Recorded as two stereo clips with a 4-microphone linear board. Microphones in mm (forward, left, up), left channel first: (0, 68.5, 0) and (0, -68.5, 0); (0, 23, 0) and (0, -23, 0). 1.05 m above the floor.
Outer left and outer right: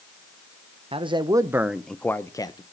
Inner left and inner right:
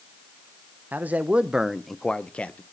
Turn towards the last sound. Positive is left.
turn(degrees=30)  # may be behind; listen again after turning